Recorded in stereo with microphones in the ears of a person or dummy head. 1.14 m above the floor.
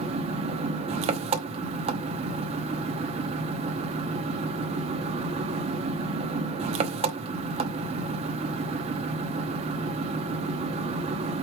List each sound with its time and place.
0.0 s an engine running: 35° right (ahead or behind), 0.8 m